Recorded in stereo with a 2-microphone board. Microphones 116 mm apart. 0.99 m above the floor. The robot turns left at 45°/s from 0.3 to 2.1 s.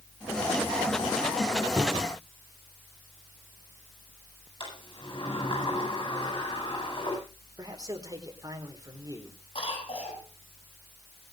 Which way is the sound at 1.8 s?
5° left (ahead or behind).